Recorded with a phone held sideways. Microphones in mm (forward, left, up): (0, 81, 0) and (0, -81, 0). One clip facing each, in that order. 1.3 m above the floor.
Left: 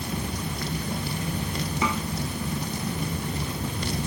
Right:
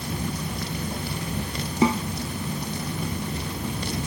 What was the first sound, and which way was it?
A snare drum, 35° right (ahead or behind).